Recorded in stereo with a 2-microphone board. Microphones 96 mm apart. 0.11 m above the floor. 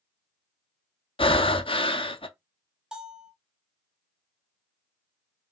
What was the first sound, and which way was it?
Breathing, 65° left (ahead or behind).